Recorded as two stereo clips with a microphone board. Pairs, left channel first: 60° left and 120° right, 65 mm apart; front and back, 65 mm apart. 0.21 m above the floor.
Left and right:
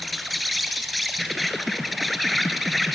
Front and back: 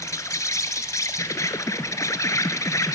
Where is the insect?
30° right, 0.9 m.